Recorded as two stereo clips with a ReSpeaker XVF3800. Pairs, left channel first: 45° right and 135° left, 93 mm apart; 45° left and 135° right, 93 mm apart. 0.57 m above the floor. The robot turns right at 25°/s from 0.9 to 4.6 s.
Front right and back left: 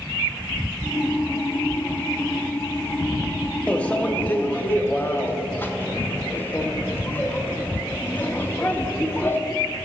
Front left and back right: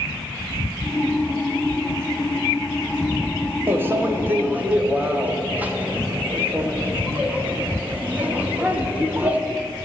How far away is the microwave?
About 0.7 m.